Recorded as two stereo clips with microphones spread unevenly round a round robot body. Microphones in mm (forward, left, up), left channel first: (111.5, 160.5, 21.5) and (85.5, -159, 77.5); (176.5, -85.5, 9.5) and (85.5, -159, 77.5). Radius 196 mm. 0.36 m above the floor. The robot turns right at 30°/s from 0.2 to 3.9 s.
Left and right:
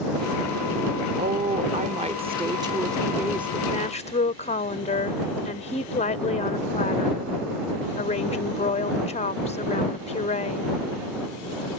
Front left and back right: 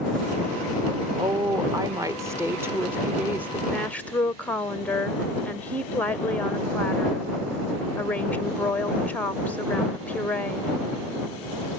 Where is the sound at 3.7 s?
35° left; by 10.8 s 40° left.